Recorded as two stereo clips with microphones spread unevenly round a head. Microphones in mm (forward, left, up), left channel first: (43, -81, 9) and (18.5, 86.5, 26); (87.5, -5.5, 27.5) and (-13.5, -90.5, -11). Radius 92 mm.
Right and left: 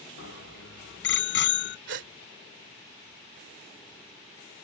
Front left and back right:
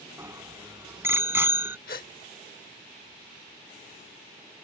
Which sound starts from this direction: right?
A bicycle bell, at 0.2 s.